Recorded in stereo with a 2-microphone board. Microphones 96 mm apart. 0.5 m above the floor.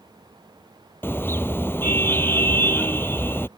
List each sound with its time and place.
1.0 s a car horn: 25° left (ahead or behind)